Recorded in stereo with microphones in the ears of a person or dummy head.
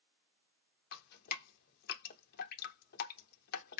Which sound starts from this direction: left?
Dripping, at 0.9 s.